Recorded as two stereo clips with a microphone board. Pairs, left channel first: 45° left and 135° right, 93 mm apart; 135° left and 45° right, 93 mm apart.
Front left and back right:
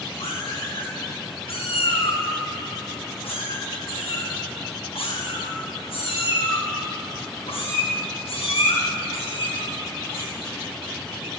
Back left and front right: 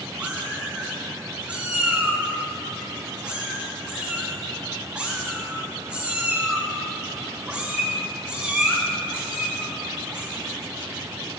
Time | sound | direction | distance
0.2 | a cat meowing | 35° left | 2.5 m